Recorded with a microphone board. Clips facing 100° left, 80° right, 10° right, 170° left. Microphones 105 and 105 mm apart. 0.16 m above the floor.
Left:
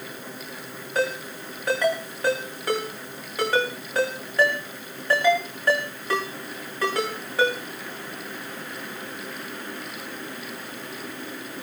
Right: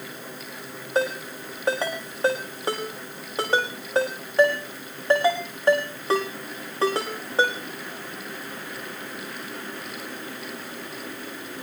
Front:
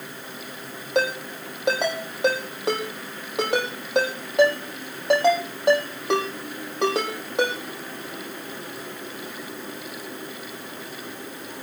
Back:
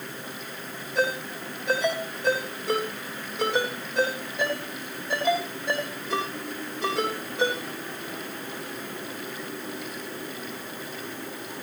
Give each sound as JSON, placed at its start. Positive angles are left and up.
{"t": 0.9, "sound": "a ringtone", "azimuth_deg": -20, "distance_m": 6.0}